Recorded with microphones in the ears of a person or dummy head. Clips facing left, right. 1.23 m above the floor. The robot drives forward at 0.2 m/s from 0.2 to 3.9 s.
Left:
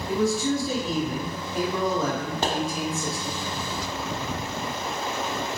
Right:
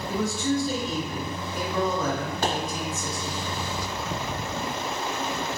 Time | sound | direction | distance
0.1 | a man speaking | 5° left (ahead or behind) | 1.1 m
2.4 | a pop | 20° left (ahead or behind) | 0.8 m